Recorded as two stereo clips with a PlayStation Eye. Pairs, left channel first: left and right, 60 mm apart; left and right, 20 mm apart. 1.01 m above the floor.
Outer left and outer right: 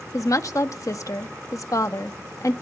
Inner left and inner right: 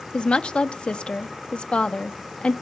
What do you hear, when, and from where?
0.1 s a woman speaking: 65° left (ahead or behind), 1.3 m